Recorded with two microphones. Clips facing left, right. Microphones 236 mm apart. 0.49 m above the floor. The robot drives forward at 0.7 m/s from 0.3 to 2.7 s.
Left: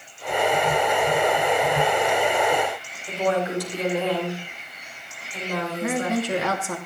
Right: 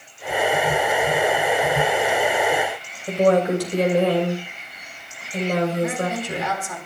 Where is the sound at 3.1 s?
65° right (ahead or behind), 3 m.